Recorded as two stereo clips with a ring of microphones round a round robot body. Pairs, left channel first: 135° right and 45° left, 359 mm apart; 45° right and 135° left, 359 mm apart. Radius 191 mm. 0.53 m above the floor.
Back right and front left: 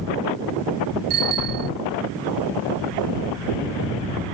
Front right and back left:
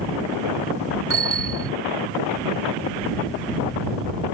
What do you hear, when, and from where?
1.1 s a bicycle bell: 80° left